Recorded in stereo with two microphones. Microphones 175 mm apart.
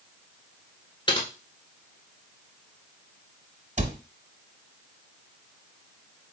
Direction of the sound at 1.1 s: 25° left (ahead or behind).